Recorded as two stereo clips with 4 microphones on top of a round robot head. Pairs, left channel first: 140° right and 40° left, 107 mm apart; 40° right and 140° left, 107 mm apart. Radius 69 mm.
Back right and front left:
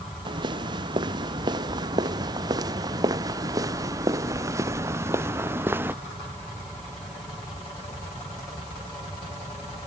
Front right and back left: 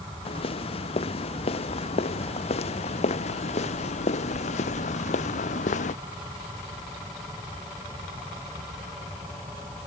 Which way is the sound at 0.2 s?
5° right.